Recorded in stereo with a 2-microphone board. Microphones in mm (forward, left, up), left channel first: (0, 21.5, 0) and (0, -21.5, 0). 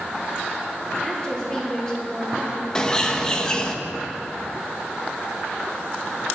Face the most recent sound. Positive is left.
turn(degrees=20)  # may be behind; listen again after turning